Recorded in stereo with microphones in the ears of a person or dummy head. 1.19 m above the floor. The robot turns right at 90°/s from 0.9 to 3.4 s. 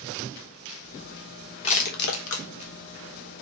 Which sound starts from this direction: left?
Crushing, at 1.6 s.